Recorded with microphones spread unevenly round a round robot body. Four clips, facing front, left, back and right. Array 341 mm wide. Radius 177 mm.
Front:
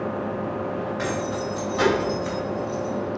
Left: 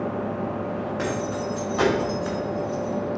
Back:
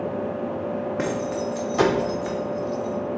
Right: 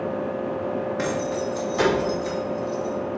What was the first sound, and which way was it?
Keys jangling, 165° right.